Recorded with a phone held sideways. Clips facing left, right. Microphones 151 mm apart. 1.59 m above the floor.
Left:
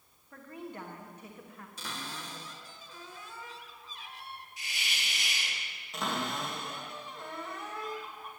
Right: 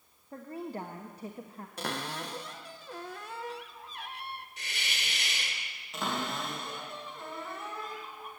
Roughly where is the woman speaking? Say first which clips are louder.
Right 5 dB; right.